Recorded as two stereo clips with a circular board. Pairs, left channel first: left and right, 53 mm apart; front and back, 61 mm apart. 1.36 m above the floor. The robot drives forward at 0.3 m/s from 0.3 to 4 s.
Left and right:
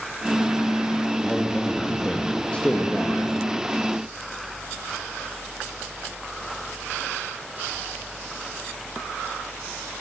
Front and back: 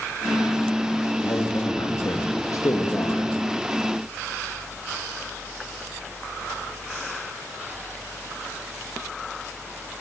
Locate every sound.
1.2 s a man speaking: 20° left, 3 m; by 3.3 s 25° left, 2.5 m